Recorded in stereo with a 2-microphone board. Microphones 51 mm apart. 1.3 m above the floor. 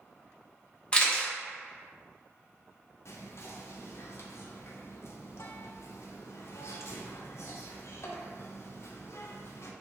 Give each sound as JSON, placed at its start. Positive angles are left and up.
{"t": 0.9, "sound": "a camera shutter", "side_deg": 20, "distance_m": 0.7}
{"t": 3.0, "sound": "whispering", "side_deg": 60, "distance_m": 0.6}